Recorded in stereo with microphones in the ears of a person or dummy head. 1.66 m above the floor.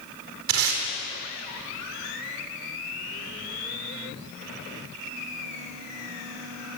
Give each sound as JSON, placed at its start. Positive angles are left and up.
{"t": 0.5, "sound": "tape being pulled", "side_deg": -70, "distance_m": 4.0}